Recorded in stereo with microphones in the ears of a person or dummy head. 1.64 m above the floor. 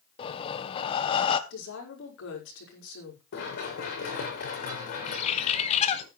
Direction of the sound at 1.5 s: 80° left.